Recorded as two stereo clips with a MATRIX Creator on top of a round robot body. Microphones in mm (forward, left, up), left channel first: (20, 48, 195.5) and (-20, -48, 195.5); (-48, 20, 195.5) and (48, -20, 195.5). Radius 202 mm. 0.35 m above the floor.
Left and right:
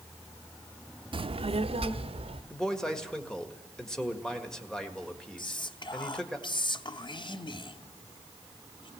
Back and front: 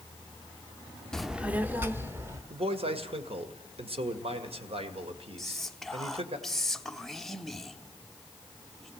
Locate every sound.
1.1 s a child speaking: 120° right, 0.6 m; by 2.4 s 85° right, 1.7 m
2.5 s a man speaking: 15° right, 1.9 m
5.4 s whispering: 70° left, 1.2 m